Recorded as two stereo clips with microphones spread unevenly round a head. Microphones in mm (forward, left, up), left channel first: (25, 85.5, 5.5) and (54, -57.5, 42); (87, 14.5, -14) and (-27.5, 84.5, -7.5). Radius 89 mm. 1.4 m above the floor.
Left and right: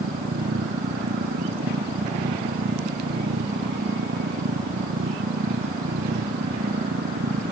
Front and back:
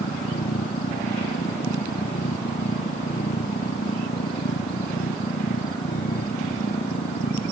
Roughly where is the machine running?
Right.